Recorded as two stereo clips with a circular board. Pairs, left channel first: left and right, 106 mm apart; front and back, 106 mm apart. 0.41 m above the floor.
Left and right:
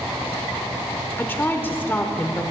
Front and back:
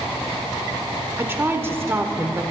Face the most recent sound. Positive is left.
turn(degrees=140)